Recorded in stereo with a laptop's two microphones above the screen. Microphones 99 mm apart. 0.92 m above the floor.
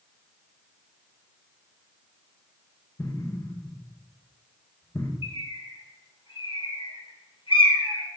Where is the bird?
60° left (ahead or behind), 3 m.